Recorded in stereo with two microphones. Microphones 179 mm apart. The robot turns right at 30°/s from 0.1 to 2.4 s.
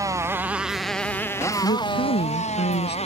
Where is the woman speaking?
65° left (ahead or behind); by 3.0 s 75° left (ahead or behind).